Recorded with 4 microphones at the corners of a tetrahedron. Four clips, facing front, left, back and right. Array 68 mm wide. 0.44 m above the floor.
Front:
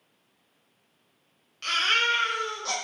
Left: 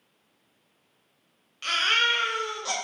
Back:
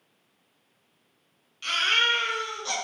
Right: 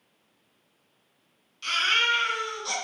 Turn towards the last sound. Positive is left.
turn(degrees=60)